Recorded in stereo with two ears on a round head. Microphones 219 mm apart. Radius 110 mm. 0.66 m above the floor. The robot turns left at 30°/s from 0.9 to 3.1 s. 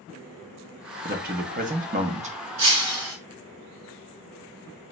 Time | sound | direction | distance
1.1 | a man speaking | 85° right | 0.6 m
2.6 | breaking glass | 75° right (ahead or behind) | 1.7 m